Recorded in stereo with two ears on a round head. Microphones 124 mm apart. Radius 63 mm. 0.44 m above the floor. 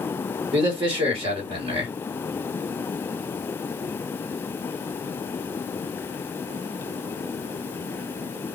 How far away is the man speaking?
About 1.7 m.